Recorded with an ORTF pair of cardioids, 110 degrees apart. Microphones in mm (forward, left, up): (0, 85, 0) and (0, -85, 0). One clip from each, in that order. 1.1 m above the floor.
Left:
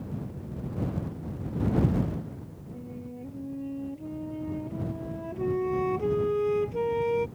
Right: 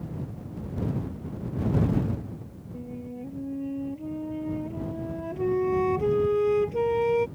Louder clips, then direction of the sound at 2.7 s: Right 4 dB; 15° right.